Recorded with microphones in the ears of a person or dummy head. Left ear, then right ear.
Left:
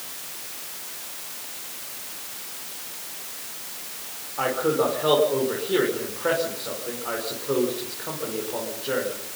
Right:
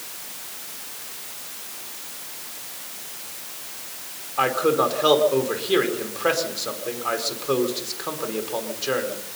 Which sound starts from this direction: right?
A man speaking, at 4.4 s.